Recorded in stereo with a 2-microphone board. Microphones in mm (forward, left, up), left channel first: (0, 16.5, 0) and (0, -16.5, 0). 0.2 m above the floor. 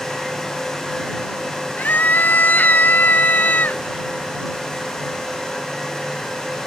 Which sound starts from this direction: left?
A scream, at 1.8 s.